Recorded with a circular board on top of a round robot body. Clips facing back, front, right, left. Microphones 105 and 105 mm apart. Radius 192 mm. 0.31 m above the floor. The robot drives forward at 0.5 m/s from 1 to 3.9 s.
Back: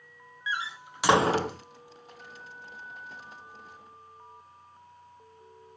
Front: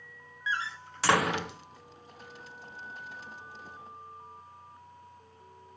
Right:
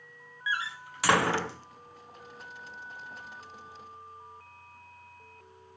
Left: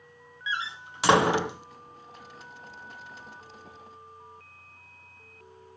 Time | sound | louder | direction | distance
0.5 | a door slam | even, even | 120° left | 0.5 m